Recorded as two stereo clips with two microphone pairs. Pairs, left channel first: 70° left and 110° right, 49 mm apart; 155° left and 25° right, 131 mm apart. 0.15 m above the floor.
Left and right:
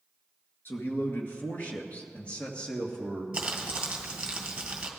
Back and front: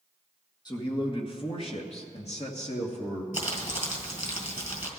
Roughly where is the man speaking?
Left.